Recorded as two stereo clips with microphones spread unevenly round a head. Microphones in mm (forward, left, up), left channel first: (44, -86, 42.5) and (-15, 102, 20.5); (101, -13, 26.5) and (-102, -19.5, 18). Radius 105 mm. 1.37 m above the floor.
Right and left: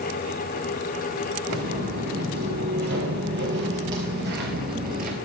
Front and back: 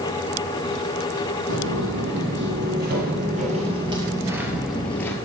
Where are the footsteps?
160° left, 3 m; by 5.2 s 70° left, 1.7 m.